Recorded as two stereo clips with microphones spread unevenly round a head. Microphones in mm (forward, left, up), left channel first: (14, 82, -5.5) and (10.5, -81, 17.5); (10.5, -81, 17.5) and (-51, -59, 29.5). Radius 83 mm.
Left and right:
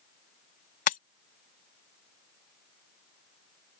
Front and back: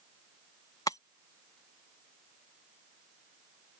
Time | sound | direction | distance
0.9 | breaking glass | 50° left | ?